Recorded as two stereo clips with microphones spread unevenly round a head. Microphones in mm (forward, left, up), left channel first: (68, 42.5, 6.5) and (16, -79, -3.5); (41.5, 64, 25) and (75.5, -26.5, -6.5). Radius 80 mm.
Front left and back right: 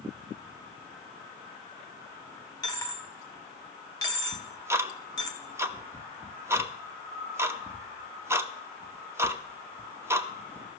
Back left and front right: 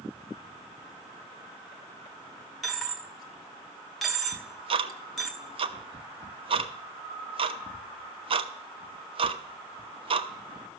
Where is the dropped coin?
60° left, 1.6 m.